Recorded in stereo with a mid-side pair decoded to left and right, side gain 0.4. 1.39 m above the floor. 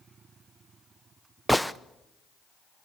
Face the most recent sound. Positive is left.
turn(degrees=-5)